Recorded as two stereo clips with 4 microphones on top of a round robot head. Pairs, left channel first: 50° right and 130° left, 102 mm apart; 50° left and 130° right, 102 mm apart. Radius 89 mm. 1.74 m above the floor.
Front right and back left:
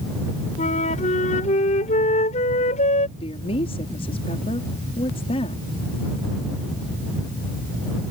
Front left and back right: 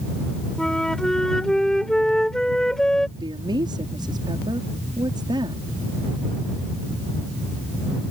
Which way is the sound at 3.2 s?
80° right.